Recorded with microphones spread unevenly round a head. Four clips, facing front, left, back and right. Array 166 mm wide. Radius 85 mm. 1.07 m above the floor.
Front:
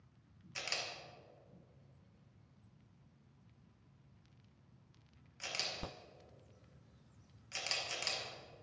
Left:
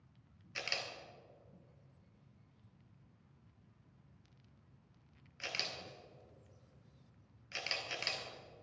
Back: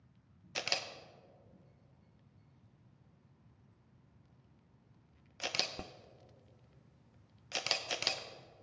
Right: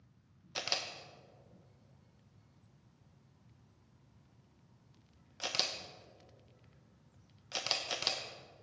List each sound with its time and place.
0.6 s a camera shutter: 150° right, 0.9 m